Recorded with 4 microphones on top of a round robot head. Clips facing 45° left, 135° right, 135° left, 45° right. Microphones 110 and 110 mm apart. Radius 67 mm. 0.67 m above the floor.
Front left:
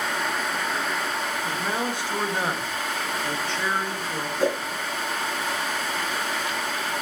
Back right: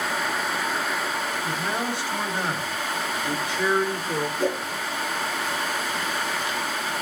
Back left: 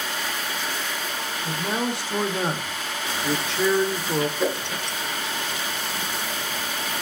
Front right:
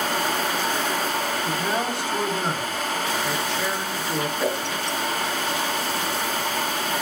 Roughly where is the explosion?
I don't hear an explosion.